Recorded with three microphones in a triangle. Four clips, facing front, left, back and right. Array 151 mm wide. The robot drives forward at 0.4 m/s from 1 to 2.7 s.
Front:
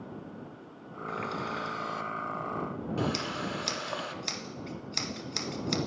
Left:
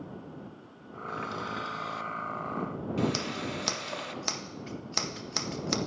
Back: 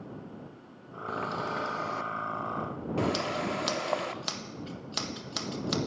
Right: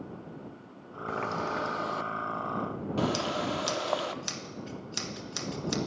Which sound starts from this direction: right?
A running tap, at 1.1 s.